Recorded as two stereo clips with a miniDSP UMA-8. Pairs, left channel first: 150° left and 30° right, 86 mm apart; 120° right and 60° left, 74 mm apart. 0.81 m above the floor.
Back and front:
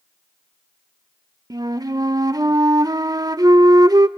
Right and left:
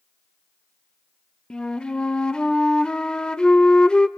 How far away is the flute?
About 0.6 m.